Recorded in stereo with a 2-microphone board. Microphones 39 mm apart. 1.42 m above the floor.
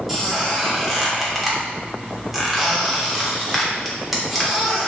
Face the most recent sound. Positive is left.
turn(degrees=-5)  # may be behind; listen again after turning